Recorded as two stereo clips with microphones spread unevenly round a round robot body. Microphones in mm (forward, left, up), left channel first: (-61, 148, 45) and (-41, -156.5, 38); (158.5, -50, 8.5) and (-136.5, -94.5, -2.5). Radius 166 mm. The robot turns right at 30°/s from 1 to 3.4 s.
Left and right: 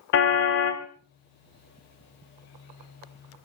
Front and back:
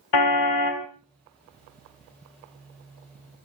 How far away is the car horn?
About 2 m.